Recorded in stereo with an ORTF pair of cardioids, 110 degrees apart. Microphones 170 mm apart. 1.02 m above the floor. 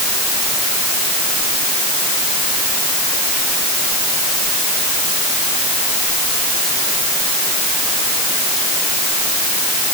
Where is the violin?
No violin in this recording.